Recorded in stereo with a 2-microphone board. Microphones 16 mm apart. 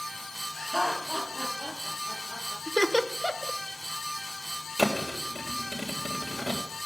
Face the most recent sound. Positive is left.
turn(degrees=5)  # may be behind; listen again after turning